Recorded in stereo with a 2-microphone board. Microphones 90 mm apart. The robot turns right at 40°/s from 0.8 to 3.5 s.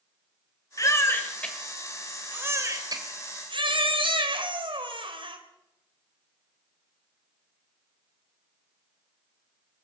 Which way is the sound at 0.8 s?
140° left.